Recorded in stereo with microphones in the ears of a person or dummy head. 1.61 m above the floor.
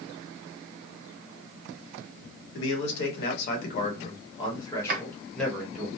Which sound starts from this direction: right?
A drawer, at 4.9 s.